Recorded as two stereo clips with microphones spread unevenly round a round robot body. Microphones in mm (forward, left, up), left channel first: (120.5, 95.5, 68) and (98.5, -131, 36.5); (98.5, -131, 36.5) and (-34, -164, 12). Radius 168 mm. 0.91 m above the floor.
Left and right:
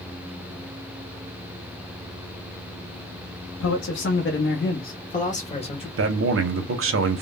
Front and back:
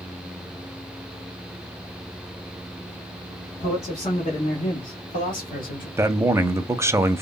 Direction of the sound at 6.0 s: 100° right.